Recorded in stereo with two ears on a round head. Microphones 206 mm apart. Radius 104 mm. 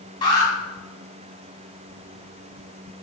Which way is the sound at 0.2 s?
20° left (ahead or behind).